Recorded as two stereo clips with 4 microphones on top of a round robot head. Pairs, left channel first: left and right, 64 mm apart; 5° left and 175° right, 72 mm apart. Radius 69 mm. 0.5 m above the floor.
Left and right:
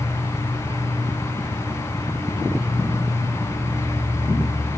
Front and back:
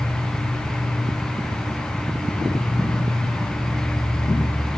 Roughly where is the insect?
Behind right.